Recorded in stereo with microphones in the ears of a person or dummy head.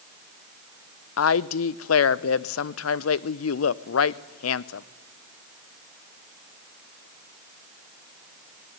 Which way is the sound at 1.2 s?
70° left (ahead or behind).